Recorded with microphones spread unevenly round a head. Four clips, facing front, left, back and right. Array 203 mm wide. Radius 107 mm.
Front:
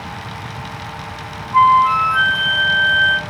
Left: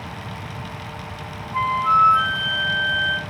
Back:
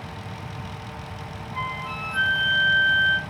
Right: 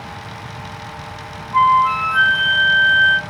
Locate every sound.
1.5 s a flute: 45° right, 1.0 m